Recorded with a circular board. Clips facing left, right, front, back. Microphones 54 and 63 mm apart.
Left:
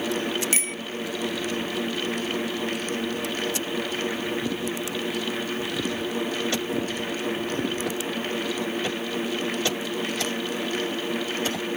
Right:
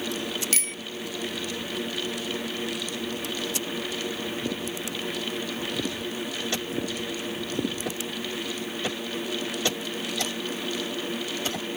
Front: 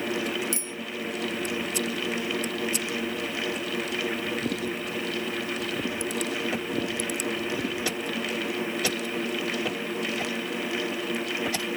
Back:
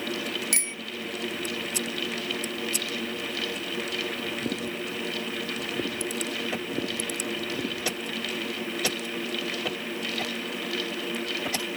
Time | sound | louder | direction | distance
0.5 | a bicycle bell | left 3 dB, back 3 dB | 160° left | ?